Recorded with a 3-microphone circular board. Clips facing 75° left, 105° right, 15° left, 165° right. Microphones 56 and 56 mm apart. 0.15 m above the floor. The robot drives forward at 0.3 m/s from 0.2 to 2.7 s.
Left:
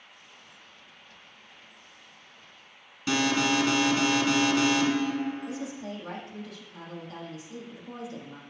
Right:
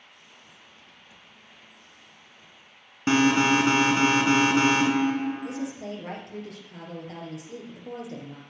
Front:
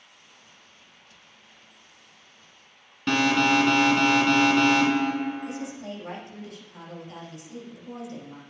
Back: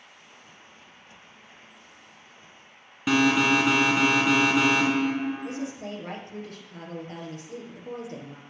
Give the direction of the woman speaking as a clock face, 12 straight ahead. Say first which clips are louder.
Right 3 dB, back 1 dB; 4 o'clock.